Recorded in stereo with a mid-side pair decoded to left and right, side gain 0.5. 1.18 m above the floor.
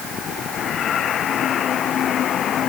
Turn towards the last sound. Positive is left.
No sound to turn to.